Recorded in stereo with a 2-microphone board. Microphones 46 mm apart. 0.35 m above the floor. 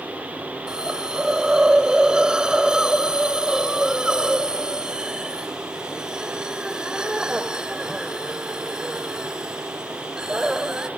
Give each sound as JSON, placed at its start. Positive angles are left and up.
{"t": 0.7, "sound": "a hiss", "side_deg": -15, "distance_m": 1.3}